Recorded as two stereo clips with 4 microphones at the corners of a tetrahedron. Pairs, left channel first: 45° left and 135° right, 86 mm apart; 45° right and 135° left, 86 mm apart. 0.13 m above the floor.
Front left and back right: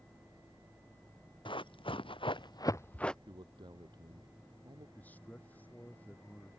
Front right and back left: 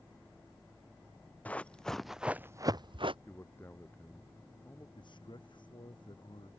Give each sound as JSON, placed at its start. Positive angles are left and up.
{"t": 1.4, "sound": "running footsteps", "azimuth_deg": 25}
{"t": 3.3, "sound": "a man speaking", "azimuth_deg": -105}
{"t": 5.0, "sound": "a man speaking", "azimuth_deg": -25}